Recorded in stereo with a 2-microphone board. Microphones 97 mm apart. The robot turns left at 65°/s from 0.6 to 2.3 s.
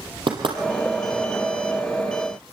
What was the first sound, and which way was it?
Knocking, 60° right (ahead or behind).